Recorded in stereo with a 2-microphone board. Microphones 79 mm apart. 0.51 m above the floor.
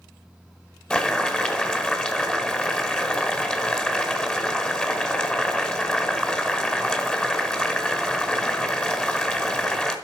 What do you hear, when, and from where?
0.9 s boiling: 15° left (ahead or behind), 1.8 m